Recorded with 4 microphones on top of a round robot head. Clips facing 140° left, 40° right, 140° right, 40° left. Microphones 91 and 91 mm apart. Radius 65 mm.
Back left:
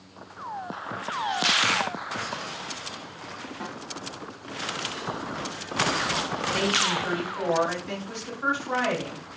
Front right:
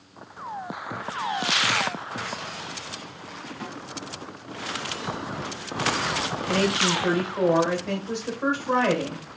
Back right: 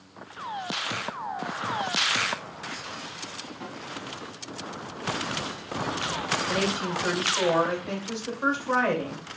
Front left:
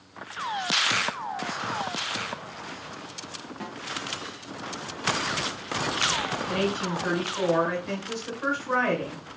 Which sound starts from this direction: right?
A woman speaking, at 6.5 s.